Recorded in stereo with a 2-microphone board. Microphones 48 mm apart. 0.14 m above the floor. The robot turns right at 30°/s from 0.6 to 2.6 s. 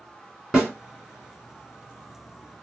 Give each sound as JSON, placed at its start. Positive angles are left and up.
{"t": 0.5, "sound": "a snare drum", "side_deg": -10, "distance_m": 1.8}